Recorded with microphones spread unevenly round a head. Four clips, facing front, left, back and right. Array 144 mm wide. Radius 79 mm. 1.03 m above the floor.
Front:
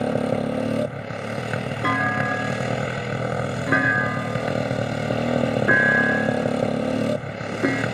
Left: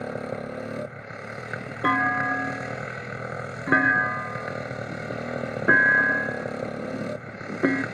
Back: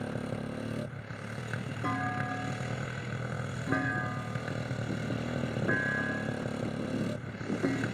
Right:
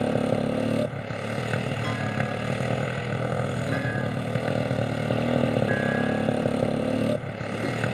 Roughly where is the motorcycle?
Ahead right.